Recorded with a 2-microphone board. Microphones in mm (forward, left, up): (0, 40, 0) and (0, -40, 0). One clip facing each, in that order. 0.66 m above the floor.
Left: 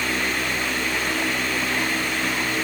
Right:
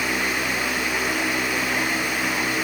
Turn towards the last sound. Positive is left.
No sound to turn to.